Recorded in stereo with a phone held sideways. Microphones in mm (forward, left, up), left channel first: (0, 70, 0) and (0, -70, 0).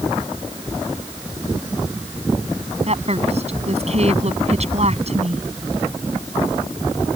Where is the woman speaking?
50° right (ahead or behind).